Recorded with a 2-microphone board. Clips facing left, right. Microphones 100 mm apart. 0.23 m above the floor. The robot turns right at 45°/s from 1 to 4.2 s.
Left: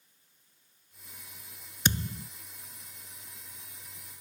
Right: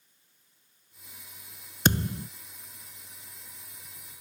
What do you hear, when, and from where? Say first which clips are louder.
1.9 s a thud: right 6 dB; 45° right (ahead or behind); by 2.3 s 65° right (ahead or behind)